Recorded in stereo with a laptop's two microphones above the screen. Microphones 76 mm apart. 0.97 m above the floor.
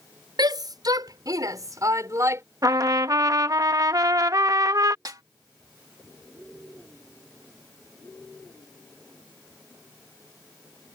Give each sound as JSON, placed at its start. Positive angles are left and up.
{"t": 0.4, "sound": "a shout", "side_deg": -65}
{"t": 2.6, "sound": "a trumpet", "side_deg": -50}
{"t": 5.0, "sound": "a snare drum", "side_deg": -55}